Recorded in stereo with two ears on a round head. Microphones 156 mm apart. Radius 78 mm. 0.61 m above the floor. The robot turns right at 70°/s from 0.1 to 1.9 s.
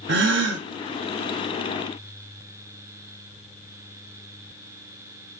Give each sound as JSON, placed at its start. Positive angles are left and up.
{"t": 0.1, "sound": "a gasp", "azimuth_deg": -105, "distance_m": 0.5}